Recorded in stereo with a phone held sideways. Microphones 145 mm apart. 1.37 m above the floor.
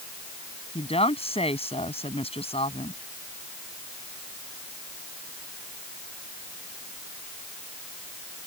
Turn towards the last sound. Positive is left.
turn(degrees=40)  # may be behind; listen again after turning